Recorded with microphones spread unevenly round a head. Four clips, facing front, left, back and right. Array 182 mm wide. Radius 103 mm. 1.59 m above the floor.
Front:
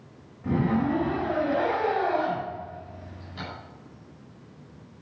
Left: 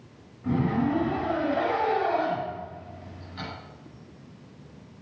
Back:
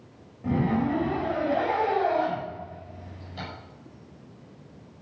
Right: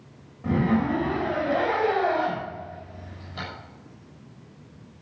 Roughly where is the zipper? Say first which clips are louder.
Right 2 dB, even; behind right.